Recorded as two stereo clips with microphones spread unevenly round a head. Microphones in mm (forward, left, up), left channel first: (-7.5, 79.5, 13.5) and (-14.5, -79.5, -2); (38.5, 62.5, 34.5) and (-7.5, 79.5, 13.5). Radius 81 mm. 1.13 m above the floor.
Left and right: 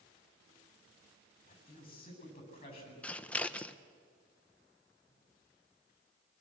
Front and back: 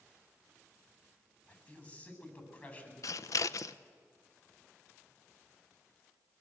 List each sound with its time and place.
1.5 s a man speaking: 30° left, 8.5 m
3.0 s scissors: 5° left, 0.6 m